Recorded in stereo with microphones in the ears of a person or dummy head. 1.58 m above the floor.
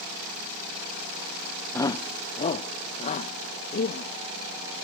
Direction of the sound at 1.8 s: 15° left (ahead or behind).